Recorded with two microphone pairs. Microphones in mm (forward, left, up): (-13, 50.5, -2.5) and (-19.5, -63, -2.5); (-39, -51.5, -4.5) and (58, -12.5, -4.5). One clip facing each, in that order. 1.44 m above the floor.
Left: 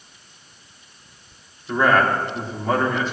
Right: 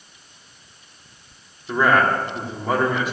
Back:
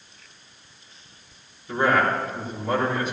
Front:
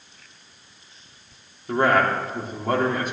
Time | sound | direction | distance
1.7 | a man speaking | 15° right | 3.5 m